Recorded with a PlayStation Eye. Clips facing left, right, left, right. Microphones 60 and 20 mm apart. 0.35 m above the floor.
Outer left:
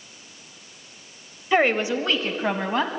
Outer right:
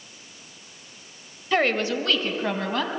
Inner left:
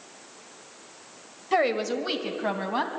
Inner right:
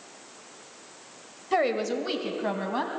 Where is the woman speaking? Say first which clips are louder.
Outer left 2 dB, inner left 1 dB; 15° left (ahead or behind), 1.3 m; by 2.9 s 20° left (ahead or behind), 2.5 m.